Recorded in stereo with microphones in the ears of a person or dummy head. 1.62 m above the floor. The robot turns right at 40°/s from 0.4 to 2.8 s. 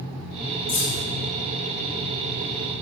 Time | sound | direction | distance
0.7 | keys jangling | 30° left (ahead or behind) | 1.1 m